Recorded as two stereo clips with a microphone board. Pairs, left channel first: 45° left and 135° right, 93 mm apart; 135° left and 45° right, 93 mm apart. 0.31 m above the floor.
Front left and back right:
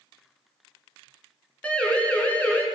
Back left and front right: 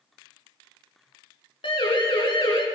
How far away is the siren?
About 5 m.